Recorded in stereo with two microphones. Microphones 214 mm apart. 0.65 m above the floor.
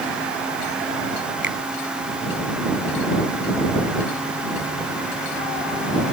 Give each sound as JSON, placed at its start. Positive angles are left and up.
{"t": 1.4, "sound": "a finger snap", "side_deg": -60}